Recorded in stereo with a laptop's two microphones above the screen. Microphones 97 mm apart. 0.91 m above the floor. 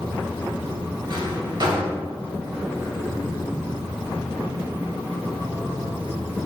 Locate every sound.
1.1 s a drawer: 50° right (ahead or behind), 1.7 m